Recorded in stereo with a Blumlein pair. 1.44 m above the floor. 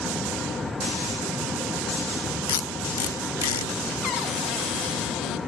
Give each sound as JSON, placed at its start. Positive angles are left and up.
{"t": 0.0, "sound": "a fan", "azimuth_deg": 10, "distance_m": 0.9}
{"t": 2.5, "sound": "tape being pulled", "azimuth_deg": 60, "distance_m": 1.3}
{"t": 4.0, "sound": "a cupboard door", "azimuth_deg": 35, "distance_m": 0.6}